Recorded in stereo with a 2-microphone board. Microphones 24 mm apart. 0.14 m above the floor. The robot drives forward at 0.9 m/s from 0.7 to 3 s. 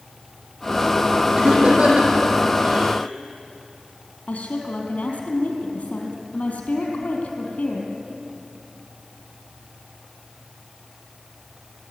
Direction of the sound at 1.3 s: 50° right (ahead or behind).